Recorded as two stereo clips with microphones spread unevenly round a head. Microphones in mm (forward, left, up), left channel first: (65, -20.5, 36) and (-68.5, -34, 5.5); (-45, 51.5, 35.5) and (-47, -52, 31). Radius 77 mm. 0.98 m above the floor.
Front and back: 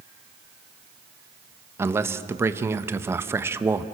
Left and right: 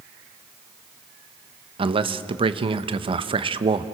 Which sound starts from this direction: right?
A man speaking, at 1.8 s.